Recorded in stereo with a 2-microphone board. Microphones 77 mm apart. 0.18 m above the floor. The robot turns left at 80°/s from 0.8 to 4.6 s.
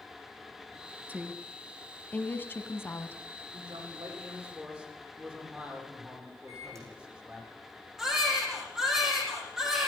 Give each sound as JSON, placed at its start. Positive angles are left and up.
{"t": 1.1, "sound": "a woman speaking", "side_deg": -20, "distance_m": 1.2}
{"t": 3.5, "sound": "a man speaking", "azimuth_deg": -80, "distance_m": 8.0}
{"t": 6.5, "sound": "a microwave", "side_deg": -40, "distance_m": 7.5}
{"t": 8.0, "sound": "a baby crying", "side_deg": -5, "distance_m": 6.5}